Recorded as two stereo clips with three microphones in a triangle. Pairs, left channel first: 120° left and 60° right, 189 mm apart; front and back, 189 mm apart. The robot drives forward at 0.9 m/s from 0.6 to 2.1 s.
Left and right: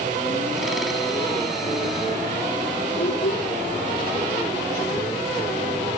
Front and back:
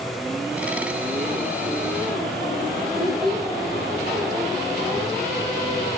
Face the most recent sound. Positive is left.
turn(degrees=100)